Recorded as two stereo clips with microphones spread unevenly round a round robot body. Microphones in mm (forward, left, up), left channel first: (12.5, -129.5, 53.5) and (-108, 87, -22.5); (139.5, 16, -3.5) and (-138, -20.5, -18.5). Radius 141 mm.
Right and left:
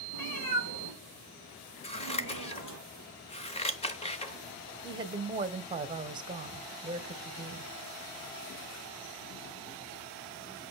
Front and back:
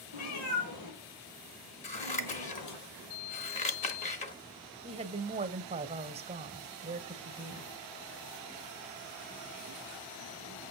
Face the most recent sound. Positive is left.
turn(degrees=140)